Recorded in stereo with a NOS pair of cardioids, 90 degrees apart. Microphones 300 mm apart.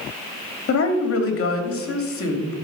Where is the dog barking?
No dog barking in this recording.